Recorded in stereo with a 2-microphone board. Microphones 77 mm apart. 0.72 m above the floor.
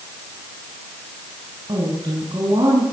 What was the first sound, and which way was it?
A woman speaking, 75° right (ahead or behind).